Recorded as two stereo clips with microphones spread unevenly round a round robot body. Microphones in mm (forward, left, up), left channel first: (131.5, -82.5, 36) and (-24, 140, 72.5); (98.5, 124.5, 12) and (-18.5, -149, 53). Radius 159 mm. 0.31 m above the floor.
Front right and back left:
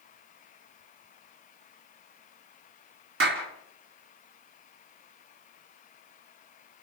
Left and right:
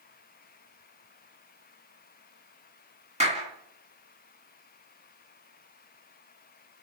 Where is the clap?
175° left, 3.5 m.